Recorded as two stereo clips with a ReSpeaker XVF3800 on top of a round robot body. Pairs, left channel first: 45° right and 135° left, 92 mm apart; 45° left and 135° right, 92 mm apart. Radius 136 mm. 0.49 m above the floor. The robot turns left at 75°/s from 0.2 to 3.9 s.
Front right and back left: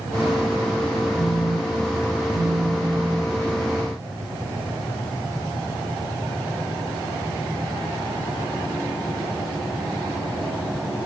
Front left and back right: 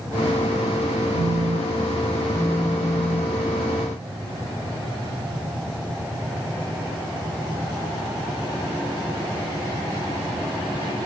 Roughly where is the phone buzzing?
Behind right.